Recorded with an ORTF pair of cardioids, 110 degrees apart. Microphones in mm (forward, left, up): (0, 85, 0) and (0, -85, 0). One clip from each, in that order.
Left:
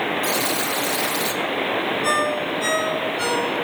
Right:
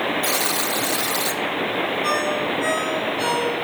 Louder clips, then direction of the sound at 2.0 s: Left 2 dB; 15° left.